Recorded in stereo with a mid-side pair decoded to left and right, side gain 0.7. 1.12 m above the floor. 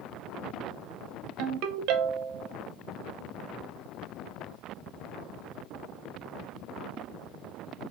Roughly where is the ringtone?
Ahead right.